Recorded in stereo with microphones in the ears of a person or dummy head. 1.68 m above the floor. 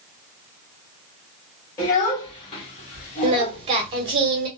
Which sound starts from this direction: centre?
A child speaking, at 1.8 s.